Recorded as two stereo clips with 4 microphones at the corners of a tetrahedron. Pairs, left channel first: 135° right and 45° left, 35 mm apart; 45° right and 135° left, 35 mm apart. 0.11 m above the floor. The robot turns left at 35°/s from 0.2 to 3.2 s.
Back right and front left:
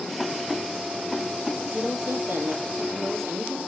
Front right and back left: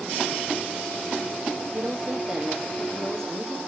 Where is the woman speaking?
85° left, 3.5 m; by 3.6 s 35° left, 3.5 m.